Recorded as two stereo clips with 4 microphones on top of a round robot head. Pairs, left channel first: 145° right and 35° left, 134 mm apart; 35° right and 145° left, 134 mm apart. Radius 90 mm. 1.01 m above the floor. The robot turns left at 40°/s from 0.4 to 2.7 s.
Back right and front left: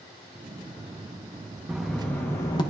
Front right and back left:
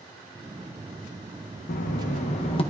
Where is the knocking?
50° right, 1.0 m; by 2.6 s 85° right, 1.0 m.